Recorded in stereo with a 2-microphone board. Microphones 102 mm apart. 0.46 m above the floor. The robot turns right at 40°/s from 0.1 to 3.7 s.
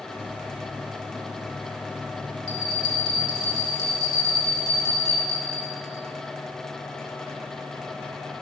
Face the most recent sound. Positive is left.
turn(degrees=140)